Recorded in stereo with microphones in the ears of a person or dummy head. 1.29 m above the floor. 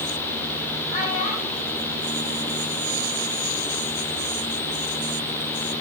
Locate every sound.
0.9 s a child speaking: 40° left (ahead or behind), 5.5 m; by 3.2 s 20° left (ahead or behind), 7.5 m